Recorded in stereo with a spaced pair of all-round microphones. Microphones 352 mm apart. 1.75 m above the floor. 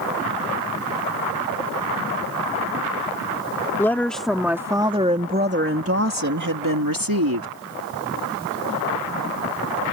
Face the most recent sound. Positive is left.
turn(degrees=-80)